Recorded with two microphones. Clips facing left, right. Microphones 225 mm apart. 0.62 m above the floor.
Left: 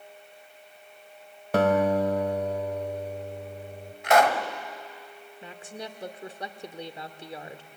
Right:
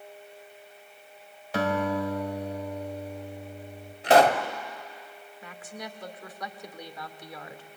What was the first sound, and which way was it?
A guitar, 55° left (ahead or behind).